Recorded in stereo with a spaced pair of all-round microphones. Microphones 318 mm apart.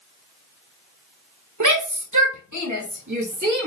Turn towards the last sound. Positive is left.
turn(degrees=-65)  # may be behind; listen again after turning